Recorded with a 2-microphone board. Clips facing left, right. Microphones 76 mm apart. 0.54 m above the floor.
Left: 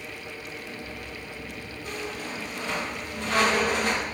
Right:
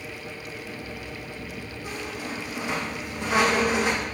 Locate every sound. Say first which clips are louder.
1.8 s a squeak: even; 10° right (ahead or behind), 5 m